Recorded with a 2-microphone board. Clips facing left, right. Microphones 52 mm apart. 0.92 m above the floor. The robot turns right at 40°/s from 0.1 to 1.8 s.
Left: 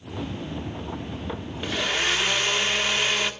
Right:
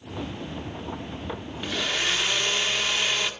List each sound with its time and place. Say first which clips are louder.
1.6 s a blender: left 2 dB; 5° left (ahead or behind), 2 m; by 3.3 s 15° left (ahead or behind), 2 m